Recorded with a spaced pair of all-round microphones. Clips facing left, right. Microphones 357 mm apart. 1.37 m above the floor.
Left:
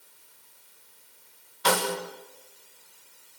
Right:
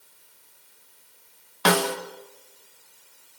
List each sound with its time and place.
1.6 s a snare drum: 80° right, 1.6 m